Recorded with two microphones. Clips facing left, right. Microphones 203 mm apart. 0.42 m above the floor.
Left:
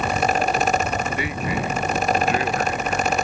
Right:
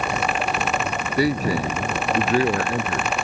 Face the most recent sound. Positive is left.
turn(degrees=-35)  # may be behind; listen again after turning